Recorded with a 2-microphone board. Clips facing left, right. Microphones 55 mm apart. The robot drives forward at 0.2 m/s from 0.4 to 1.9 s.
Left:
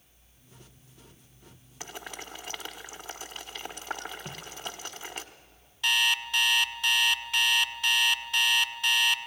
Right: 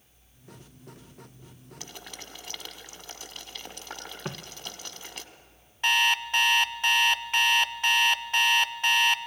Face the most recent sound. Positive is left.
turn(degrees=-40)  # may be behind; listen again after turning